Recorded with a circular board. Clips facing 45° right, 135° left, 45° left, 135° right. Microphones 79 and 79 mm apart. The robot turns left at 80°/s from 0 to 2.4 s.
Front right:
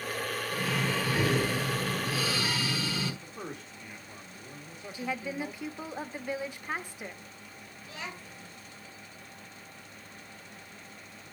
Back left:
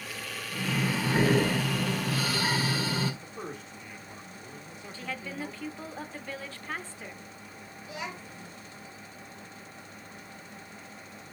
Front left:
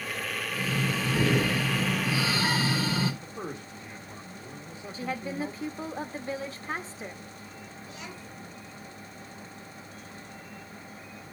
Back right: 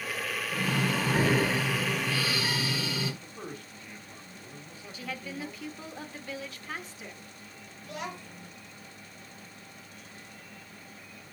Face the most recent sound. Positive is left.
turn(degrees=-150)